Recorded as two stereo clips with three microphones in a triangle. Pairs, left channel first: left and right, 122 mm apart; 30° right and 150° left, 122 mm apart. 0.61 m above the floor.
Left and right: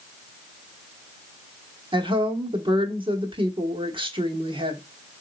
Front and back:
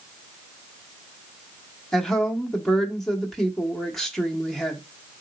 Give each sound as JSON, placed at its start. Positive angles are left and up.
{"t": 1.9, "sound": "a woman speaking", "azimuth_deg": -115, "distance_m": 1.1}